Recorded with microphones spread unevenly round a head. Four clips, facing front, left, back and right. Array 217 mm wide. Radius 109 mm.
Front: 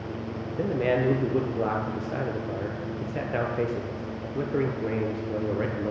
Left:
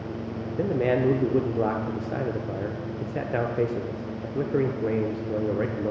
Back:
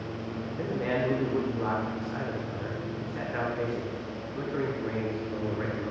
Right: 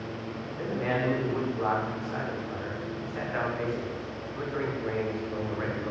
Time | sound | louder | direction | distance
0.6 | a man speaking | left 6 dB, front 5 dB | 60° left | 0.6 m